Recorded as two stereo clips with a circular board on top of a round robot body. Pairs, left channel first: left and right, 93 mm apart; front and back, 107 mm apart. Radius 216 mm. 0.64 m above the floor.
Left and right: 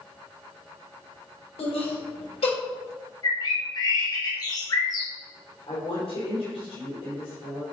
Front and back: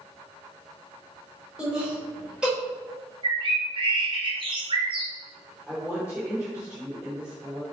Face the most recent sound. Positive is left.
turn(degrees=100)